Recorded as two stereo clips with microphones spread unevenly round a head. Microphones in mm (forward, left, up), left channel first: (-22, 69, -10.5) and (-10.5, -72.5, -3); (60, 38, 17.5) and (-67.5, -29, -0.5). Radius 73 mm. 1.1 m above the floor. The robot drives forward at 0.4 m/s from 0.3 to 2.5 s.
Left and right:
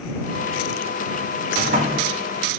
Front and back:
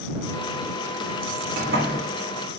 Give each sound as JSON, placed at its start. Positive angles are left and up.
{"t": 1.6, "sound": "a sliding door", "azimuth_deg": -120, "distance_m": 3.5}